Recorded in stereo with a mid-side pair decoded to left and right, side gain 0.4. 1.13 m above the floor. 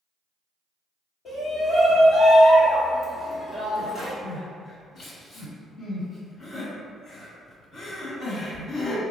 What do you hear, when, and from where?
1.2 s a shout: 55° left, 1.2 m
4.2 s crying: 70° left, 1.8 m